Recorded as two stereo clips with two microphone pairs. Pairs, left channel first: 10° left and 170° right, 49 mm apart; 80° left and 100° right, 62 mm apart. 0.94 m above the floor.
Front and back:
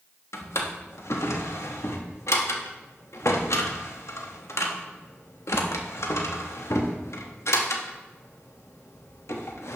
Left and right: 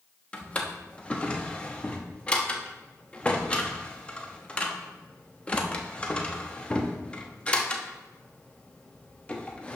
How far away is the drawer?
About 0.8 m.